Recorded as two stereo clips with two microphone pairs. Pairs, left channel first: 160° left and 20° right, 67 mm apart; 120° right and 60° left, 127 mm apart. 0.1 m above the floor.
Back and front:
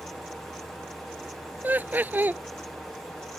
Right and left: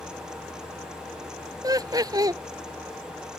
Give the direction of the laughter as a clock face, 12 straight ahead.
11 o'clock.